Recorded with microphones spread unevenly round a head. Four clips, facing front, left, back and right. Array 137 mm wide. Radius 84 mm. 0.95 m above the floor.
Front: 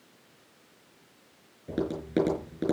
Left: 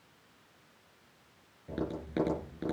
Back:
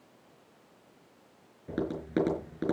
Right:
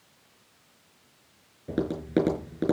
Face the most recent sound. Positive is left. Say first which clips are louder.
# right 9 dB, front 2 dB
turn(degrees=-110)